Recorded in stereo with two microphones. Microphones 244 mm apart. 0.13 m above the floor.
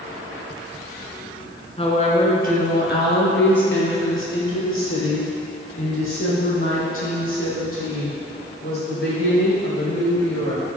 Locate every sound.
1.8 s a woman speaking: 25° left (ahead or behind), 1.6 m; by 10.7 s 70° left (ahead or behind), 7.5 m